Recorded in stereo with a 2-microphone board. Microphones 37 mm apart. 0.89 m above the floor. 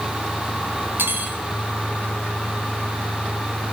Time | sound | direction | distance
1.0 | cutlery clinking | 75° right (ahead or behind) | 4 m